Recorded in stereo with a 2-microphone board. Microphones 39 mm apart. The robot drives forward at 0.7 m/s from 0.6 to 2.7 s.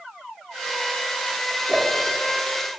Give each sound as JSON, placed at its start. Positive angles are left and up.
{"t": 1.7, "sound": "a whoosh", "side_deg": -15, "distance_m": 1.6}